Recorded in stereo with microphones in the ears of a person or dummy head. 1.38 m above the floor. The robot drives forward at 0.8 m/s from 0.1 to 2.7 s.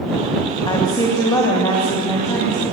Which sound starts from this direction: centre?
A woman speaking, at 0.7 s.